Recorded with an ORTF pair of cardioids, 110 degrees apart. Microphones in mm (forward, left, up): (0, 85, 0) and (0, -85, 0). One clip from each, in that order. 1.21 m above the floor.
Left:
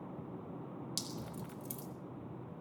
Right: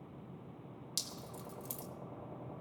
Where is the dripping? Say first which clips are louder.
Right 2 dB; 5° right, 4 m.